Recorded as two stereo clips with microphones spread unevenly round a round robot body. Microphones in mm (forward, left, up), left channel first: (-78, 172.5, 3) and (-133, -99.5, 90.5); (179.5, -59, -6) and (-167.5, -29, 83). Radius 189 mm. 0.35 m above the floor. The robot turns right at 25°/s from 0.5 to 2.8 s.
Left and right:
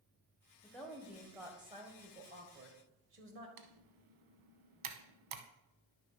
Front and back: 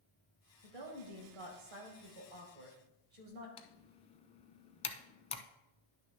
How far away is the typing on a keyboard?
About 0.7 m.